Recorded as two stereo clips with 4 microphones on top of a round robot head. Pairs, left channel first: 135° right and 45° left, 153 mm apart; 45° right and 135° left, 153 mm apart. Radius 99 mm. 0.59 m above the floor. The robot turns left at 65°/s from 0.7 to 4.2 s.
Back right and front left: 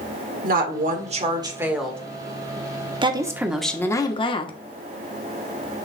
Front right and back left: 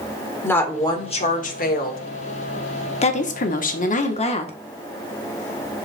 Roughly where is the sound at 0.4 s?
Ahead left.